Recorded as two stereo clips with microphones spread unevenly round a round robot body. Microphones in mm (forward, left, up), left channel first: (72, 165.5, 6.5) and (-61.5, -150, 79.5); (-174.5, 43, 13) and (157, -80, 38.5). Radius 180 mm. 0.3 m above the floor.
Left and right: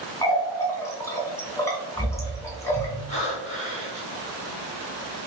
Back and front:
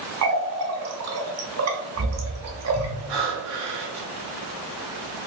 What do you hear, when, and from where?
0.2 s a running tap: 5° left, 0.7 m
3.1 s breathing: straight ahead, 1.3 m